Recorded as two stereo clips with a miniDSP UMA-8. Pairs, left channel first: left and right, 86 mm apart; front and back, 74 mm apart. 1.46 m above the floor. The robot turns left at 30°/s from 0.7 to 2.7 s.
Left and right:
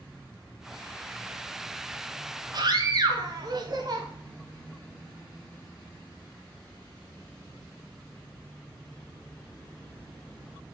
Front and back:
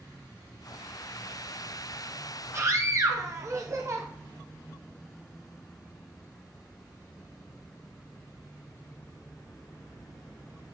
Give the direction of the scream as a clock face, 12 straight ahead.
4 o'clock.